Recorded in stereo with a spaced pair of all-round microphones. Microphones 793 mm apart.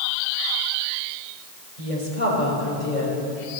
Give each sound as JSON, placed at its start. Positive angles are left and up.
{"t": 1.8, "sound": "a woman speaking", "side_deg": 65, "distance_m": 5.0}